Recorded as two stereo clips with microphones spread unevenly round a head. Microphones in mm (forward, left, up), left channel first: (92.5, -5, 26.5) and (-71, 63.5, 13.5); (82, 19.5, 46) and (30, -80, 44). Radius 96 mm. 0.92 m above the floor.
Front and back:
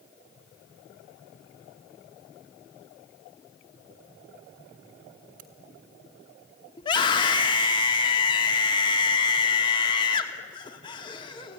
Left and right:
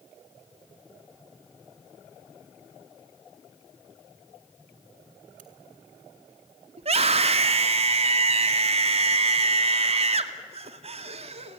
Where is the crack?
150° right, 1.4 m.